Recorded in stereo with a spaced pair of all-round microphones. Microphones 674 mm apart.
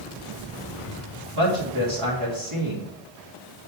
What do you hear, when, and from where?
1.4 s a woman speaking: 45° right (ahead or behind), 3 m